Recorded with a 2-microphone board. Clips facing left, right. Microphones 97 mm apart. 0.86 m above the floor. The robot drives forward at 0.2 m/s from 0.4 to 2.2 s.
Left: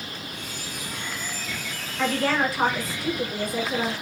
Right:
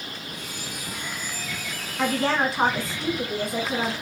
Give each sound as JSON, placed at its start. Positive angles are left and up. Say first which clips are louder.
{"t": 2.0, "sound": "a woman speaking", "louder": "even", "side_deg": -25, "distance_m": 0.9}